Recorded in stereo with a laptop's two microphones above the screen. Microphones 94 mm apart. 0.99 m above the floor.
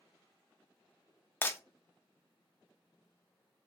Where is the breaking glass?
25° left (ahead or behind), 0.6 m.